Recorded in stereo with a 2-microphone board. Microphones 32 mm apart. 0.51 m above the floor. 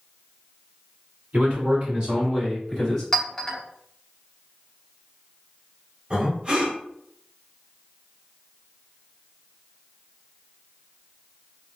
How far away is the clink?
About 0.8 m.